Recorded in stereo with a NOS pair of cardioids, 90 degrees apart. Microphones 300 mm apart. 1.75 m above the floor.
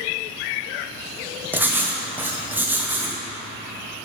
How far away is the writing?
About 1.0 m.